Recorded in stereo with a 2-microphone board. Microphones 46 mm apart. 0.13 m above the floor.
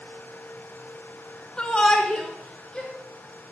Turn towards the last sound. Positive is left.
turn(degrees=20)  # may be behind; listen again after turning